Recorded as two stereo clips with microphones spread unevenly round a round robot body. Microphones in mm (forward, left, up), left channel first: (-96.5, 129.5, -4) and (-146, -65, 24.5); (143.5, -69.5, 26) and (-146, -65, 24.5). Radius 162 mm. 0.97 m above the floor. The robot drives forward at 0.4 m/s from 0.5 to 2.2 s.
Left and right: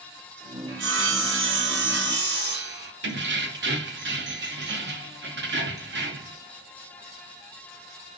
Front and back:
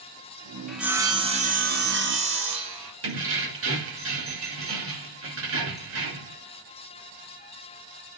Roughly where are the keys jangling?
Behind right.